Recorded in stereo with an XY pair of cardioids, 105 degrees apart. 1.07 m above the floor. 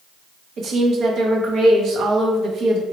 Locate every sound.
0.6 s a woman speaking: 60° right, 0.9 m